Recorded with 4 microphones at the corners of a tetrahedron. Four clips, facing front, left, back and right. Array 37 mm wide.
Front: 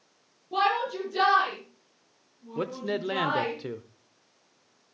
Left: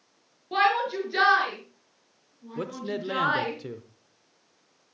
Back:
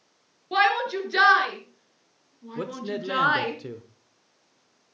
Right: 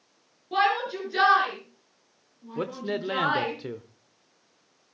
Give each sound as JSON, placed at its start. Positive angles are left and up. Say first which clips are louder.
{"t": 0.5, "sound": "a shout", "louder": "left 1 dB, back 4 dB", "azimuth_deg": 170, "distance_m": 6.0}
{"t": 2.5, "sound": "a man speaking", "louder": "right 2 dB, front 1 dB", "azimuth_deg": -50, "distance_m": 0.9}